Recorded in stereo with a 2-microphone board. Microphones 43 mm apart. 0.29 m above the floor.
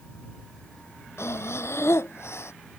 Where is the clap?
No clap in this recording.